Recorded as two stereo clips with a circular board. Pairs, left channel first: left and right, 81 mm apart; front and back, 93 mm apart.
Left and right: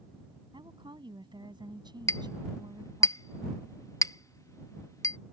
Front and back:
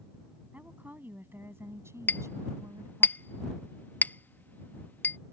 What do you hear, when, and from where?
0.5 s a woman speaking: 105° right; by 3.1 s 130° right
2.1 s a clink: 60° left